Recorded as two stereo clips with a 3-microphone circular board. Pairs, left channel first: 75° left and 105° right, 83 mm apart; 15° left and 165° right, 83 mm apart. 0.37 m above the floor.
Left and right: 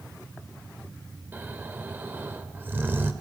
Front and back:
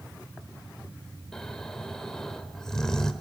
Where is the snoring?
60° right, 1.2 m.